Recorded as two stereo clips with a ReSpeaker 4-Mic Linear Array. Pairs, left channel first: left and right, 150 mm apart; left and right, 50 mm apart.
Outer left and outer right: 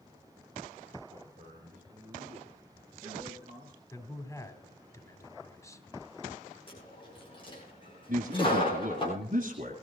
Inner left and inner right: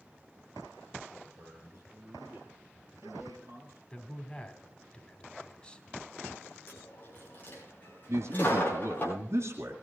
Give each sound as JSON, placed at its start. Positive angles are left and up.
{"t": 1.1, "sound": "a man speaking", "side_deg": -50, "distance_m": 5.0}
{"t": 3.9, "sound": "a man speaking", "side_deg": 20, "distance_m": 2.0}
{"t": 6.7, "sound": "a dropped coin", "side_deg": 35, "distance_m": 9.5}
{"t": 8.1, "sound": "a man speaking", "side_deg": -65, "distance_m": 2.5}